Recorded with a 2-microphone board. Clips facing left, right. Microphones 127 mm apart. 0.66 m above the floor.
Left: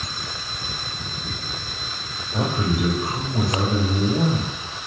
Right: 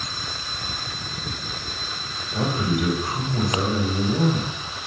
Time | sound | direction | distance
2.3 | a man speaking | 40° left (ahead or behind) | 1.5 m